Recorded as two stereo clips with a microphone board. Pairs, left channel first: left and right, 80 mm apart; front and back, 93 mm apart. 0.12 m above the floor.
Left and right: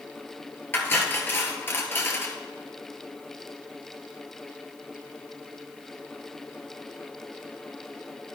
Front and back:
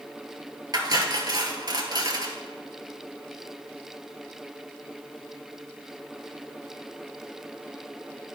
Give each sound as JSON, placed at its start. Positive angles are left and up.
{"t": 0.7, "sound": "cutlery clinking", "azimuth_deg": 150, "distance_m": 1.4}